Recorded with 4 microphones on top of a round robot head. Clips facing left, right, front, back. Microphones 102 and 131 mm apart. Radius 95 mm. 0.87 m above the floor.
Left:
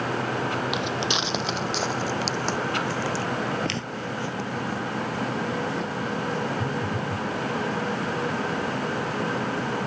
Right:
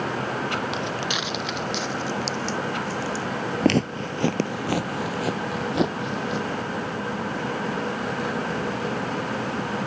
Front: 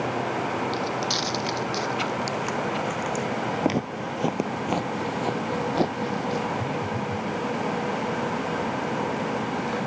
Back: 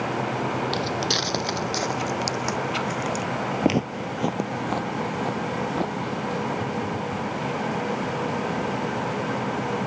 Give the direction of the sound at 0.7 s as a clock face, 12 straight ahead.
7 o'clock.